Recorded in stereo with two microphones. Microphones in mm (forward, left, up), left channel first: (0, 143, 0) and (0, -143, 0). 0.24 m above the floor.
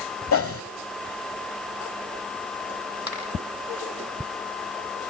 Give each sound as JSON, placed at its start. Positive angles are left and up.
{"t": 0.3, "sound": "a whoosh", "side_deg": 50, "distance_m": 0.8}
{"t": 3.1, "sound": "a finger snap", "side_deg": -80, "distance_m": 9.5}